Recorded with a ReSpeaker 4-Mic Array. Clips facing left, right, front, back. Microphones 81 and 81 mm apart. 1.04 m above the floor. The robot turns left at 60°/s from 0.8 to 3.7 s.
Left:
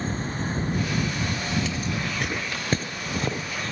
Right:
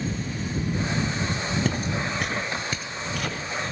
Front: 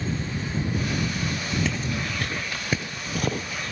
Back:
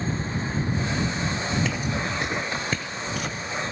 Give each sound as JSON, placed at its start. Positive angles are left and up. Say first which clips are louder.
{"t": 1.6, "sound": "footsteps", "louder": "right 2 dB, back 1 dB", "azimuth_deg": -90}